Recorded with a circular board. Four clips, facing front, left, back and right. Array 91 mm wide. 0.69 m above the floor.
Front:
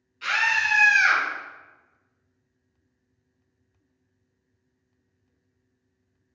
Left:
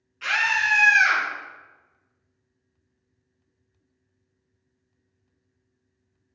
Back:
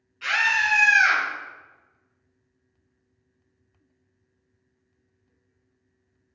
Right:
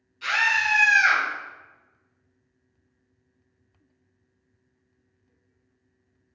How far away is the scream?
About 1.0 m.